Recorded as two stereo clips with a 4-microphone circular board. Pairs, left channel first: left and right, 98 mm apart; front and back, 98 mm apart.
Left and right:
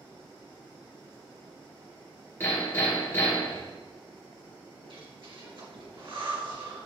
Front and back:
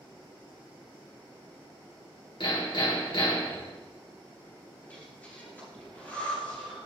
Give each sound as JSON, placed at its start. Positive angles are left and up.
{"t": 2.4, "sound": "hammering", "azimuth_deg": 25, "distance_m": 3.5}
{"t": 4.8, "sound": "breathing", "azimuth_deg": -70, "distance_m": 3.0}